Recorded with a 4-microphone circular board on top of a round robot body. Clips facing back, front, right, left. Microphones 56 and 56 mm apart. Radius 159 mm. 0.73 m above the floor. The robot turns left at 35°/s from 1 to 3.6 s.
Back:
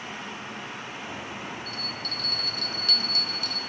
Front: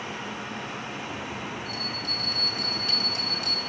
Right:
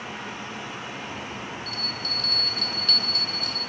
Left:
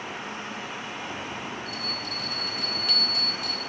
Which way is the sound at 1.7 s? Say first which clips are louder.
Front 2 dB, even; 65° left.